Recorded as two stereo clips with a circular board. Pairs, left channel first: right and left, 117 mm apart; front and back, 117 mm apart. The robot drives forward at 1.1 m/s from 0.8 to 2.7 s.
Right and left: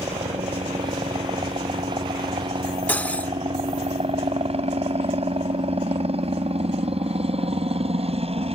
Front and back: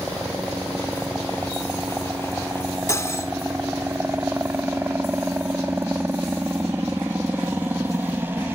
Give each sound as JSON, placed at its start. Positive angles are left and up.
{"t": 0.0, "sound": "a helicopter", "azimuth_deg": 105}
{"t": 2.9, "sound": "cutlery clinking", "azimuth_deg": -30}